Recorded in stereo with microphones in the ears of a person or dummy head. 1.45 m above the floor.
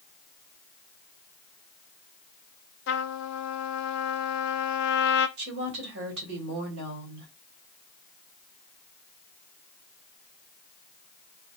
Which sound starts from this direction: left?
A trumpet, at 2.9 s.